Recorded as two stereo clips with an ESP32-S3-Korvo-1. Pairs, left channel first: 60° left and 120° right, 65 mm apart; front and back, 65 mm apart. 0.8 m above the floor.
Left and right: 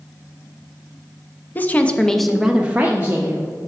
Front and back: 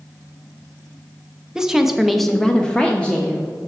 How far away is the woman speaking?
About 0.7 m.